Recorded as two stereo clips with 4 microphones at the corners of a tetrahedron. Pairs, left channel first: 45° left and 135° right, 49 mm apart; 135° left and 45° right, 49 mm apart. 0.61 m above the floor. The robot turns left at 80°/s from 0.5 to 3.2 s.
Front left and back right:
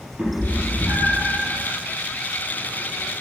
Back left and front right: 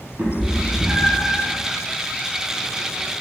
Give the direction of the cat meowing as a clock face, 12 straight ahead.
3 o'clock.